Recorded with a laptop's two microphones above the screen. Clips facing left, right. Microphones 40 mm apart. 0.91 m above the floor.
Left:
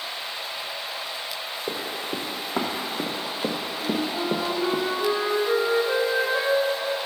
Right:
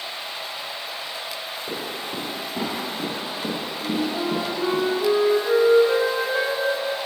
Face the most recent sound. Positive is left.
turn(degrees=5)  # may be behind; listen again after turning